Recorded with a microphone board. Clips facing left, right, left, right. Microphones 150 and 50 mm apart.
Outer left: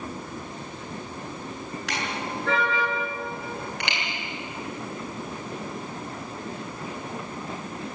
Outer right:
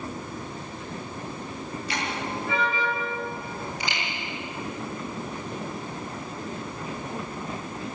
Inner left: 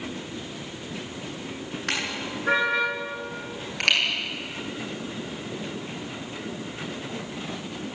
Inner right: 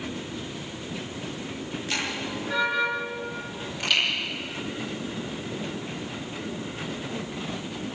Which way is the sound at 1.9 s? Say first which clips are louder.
Even, inner left 1 dB; 75° left (ahead or behind).